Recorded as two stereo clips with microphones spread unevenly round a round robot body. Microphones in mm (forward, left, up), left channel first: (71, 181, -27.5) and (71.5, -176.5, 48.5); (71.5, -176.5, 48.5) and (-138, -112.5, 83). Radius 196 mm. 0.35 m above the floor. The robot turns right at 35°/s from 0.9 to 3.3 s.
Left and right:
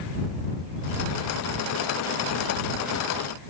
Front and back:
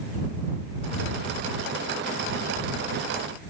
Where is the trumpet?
No trumpet in this recording.